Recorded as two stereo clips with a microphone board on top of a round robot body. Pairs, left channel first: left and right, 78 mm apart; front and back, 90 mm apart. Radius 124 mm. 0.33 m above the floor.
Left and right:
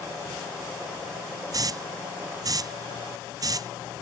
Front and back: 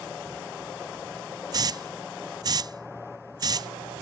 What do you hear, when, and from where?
1.5 s a hiss: 135° right